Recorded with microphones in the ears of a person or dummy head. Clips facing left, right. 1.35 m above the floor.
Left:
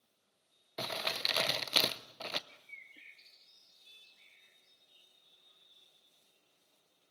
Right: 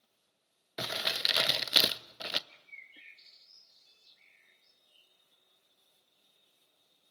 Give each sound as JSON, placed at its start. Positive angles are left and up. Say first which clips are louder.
{"t": 0.8, "sound": "crumpling", "louder": "right 1 dB", "side_deg": -10, "distance_m": 0.5}
{"t": 2.5, "sound": "a bird", "louder": "even", "side_deg": -10, "distance_m": 4.0}